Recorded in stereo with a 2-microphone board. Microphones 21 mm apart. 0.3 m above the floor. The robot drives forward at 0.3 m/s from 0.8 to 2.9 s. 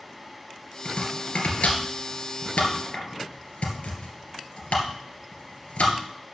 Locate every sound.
0.8 s chopping: 80° left, 2 m; by 6.0 s 75° left (ahead or behind), 2.5 m